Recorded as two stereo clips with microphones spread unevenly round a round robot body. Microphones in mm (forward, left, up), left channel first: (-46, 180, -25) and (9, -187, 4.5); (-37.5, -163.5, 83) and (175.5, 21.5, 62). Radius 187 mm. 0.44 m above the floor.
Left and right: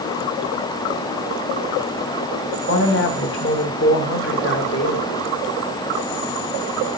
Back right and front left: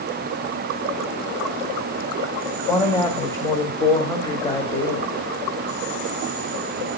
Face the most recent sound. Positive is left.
turn(degrees=145)